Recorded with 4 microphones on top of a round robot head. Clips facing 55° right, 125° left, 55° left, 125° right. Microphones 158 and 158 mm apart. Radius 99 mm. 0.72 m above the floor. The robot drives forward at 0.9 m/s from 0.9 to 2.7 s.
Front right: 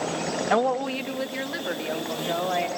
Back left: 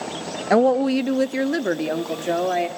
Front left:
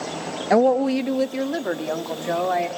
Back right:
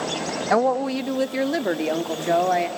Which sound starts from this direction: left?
A woman speaking, at 0.5 s.